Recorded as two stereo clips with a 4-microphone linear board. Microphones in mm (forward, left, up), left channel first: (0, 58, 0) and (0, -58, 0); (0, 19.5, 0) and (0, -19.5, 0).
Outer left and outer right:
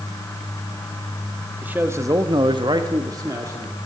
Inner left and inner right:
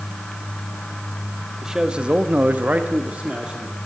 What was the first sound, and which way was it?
A man speaking, 15° right (ahead or behind).